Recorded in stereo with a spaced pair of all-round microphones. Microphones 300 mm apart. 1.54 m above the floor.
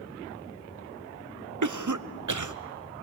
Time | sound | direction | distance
1.6 | a cough | 75° right (ahead or behind) | 0.7 m